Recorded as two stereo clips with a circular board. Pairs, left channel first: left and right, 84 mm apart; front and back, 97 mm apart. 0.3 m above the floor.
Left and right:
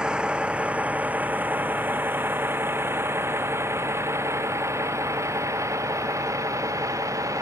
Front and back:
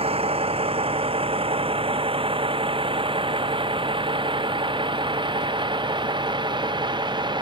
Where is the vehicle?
170° right; by 7.4 s 140° right.